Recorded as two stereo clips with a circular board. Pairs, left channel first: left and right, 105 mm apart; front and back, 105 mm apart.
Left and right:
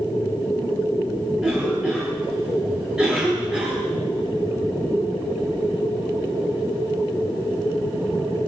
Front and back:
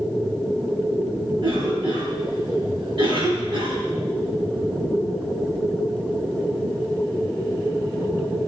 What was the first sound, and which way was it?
A cough, 170° right.